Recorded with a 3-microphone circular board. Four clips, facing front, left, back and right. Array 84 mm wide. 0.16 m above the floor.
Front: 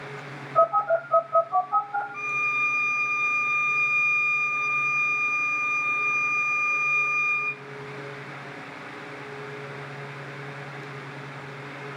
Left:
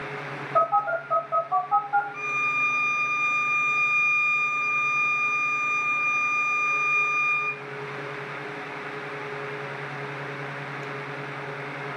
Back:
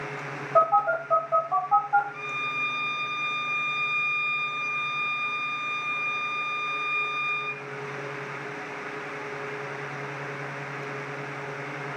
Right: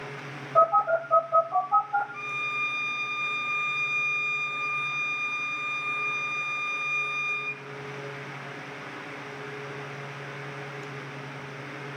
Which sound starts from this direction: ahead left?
A violin, at 2.1 s.